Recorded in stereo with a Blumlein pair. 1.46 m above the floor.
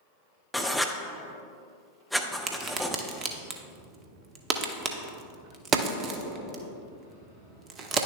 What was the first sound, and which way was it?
Writing, straight ahead.